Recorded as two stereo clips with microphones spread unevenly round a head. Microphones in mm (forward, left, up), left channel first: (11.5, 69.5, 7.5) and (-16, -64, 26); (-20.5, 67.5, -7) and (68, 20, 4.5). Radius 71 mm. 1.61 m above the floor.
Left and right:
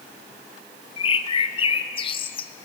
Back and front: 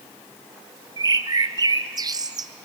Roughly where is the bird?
Ahead left.